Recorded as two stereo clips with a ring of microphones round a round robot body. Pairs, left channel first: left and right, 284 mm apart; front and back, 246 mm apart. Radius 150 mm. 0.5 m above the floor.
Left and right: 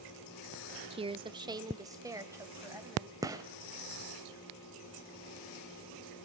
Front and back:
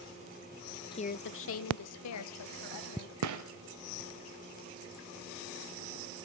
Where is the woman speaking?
45° right, 0.7 m; by 3.1 s 10° right, 3.5 m.